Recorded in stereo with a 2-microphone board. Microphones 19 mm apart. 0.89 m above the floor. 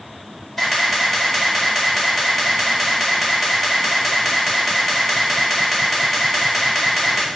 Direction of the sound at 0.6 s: 15° left (ahead or behind).